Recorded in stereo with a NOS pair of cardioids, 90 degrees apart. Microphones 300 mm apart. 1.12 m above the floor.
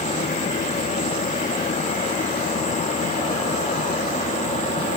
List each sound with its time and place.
0.0 s a fan: 25° left, 1.3 m